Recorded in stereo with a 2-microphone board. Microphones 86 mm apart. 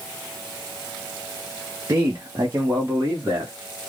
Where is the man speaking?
35° right (ahead or behind), 0.8 m; by 3.5 s 25° right (ahead or behind), 1.4 m.